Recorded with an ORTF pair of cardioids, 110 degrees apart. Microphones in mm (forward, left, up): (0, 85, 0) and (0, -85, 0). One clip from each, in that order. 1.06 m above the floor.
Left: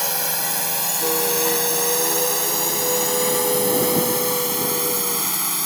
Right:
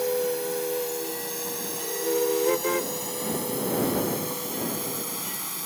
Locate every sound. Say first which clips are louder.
0.0 s a drone: left 1 dB; 70° left; by 5.7 s 55° left